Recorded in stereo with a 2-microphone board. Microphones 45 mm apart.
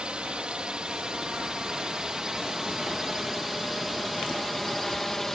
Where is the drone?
25° right (ahead or behind); by 5.4 s 5° left (ahead or behind).